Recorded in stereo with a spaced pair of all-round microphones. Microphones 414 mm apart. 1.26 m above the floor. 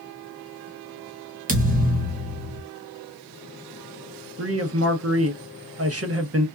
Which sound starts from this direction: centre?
A thud, at 1.5 s.